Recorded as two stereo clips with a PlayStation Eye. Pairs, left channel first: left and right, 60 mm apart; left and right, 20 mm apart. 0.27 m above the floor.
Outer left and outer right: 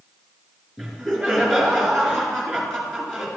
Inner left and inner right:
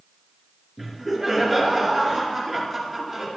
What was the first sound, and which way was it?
Laughter, 5° left (ahead or behind).